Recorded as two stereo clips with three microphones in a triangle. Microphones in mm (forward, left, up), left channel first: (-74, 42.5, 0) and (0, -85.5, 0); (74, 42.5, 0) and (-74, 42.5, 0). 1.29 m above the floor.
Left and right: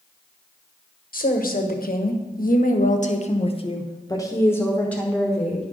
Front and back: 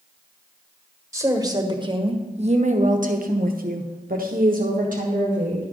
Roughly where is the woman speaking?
Left.